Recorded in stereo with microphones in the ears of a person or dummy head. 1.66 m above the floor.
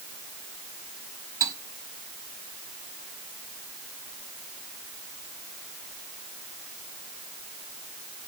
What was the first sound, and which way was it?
Cutlery clinking, 15° right (ahead or behind).